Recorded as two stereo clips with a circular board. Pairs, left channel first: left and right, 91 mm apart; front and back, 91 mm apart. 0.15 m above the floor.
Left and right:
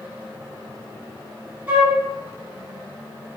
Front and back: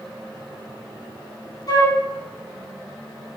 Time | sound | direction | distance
1.7 | a flute | 20° right | 2 m